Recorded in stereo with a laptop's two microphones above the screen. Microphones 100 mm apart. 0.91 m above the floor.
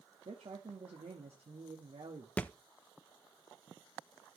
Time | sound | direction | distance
0.2 | a man speaking | 75° right (ahead or behind) | 1.4 m
2.4 | a thud | 15° left (ahead or behind) | 0.5 m